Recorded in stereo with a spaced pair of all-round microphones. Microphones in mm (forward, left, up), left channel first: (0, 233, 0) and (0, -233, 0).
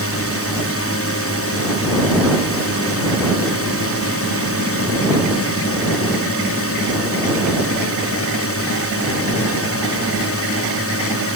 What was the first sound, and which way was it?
A drone, 30° left (ahead or behind).